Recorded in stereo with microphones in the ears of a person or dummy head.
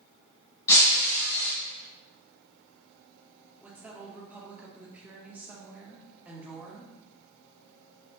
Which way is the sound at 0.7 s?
15° left (ahead or behind).